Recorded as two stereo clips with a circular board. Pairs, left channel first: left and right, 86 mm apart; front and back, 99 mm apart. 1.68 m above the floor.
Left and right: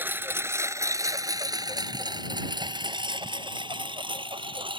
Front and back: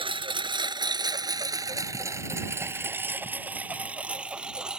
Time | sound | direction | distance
0.0 | a lawn mower | 155° right | ?